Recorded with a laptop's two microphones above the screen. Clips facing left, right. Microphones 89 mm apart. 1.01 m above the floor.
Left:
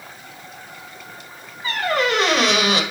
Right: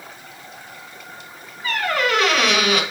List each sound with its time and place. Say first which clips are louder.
1.6 s a squeak: left 1 dB; 35° left (ahead or behind), 1.2 m